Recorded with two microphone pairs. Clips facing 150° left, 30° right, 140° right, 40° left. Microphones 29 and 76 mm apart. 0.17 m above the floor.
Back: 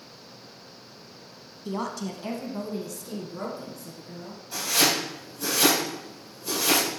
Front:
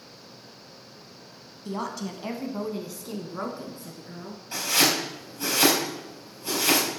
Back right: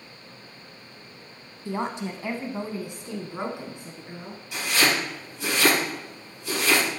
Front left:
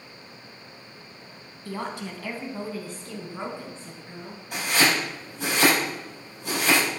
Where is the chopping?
10° left, 4.5 m.